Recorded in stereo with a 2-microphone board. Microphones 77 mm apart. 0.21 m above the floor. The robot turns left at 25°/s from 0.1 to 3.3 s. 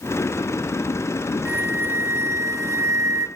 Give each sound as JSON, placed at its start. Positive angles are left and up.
{"t": 1.4, "sound": "a flute", "azimuth_deg": -40, "distance_m": 1.1}